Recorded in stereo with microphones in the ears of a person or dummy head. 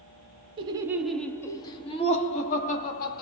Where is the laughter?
25° right (ahead or behind), 0.6 m; by 3.2 s 50° left (ahead or behind), 1.4 m.